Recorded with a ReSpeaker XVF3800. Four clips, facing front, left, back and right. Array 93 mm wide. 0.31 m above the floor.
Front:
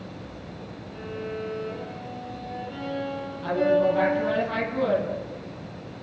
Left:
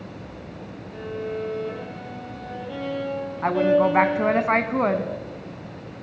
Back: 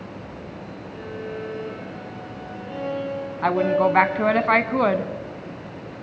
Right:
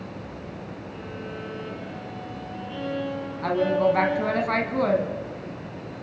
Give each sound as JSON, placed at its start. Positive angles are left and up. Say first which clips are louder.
{"t": 0.9, "sound": "a violin", "louder": "left 9 dB, back 1 dB", "azimuth_deg": 100, "distance_m": 10.0}
{"t": 3.4, "sound": "a woman speaking", "louder": "left 3 dB, back 2 dB", "azimuth_deg": 155, "distance_m": 2.0}